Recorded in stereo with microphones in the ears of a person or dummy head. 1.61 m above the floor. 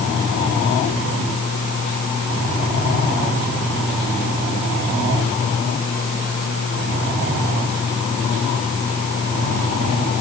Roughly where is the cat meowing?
I don't hear a cat meowing.